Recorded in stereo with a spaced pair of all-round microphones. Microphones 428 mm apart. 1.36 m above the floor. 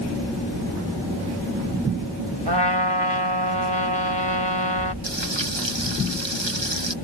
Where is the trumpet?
75° right (ahead or behind).